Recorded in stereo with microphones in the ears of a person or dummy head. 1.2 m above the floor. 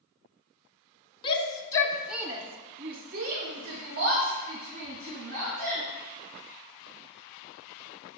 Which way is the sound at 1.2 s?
30° left (ahead or behind).